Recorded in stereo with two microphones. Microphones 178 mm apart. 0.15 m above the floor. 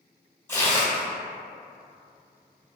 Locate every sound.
0.5 s tearing paper: 15° left (ahead or behind), 1.2 m